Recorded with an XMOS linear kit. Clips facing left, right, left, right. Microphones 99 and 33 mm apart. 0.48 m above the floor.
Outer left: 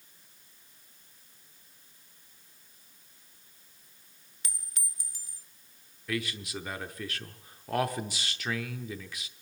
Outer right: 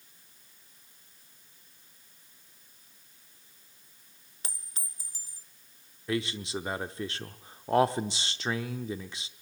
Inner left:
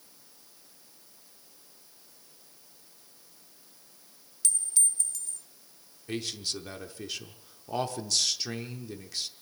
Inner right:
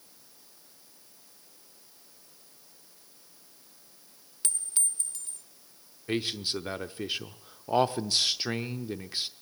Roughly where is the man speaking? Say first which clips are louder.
Outer right 3 dB, inner right 4 dB; right.